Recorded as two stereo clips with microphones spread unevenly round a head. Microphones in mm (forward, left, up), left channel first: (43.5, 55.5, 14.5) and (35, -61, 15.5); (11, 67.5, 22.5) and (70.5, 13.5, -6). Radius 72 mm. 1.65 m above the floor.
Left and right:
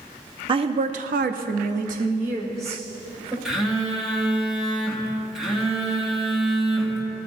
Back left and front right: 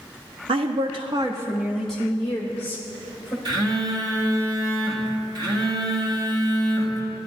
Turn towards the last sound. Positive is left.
turn(degrees=-10)